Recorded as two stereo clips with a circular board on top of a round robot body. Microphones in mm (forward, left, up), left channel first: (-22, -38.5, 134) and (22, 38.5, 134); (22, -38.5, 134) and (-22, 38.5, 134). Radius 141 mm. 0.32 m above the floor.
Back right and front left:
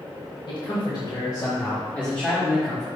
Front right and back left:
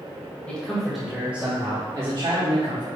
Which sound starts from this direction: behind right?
A man speaking, at 0.5 s.